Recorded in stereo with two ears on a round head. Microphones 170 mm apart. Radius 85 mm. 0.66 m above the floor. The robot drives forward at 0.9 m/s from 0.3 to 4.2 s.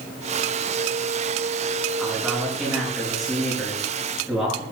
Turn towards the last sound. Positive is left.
turn(degrees=0)  # may be behind; listen again after turning